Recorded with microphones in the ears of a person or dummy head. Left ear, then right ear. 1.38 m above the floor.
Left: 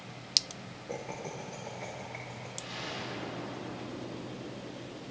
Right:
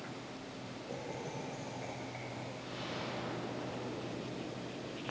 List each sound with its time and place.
0.9 s laughter: 45° left (ahead or behind), 0.8 m; by 2.5 s 35° left (ahead or behind), 1.8 m
2.6 s an explosion: 85° left, 3 m